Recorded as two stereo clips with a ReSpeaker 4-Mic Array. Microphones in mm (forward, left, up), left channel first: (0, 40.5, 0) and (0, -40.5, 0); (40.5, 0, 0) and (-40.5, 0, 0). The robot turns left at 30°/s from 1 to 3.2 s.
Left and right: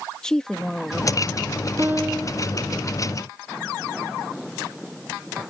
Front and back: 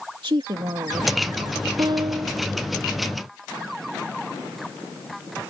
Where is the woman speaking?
170° left; by 1.7 s 150° left.